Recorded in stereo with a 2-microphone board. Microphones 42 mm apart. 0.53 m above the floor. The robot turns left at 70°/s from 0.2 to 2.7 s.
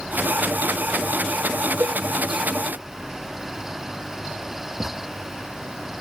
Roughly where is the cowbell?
Right.